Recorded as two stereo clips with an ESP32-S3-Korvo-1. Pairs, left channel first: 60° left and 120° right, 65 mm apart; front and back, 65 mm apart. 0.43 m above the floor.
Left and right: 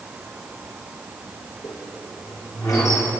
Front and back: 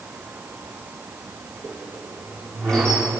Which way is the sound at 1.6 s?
80° left.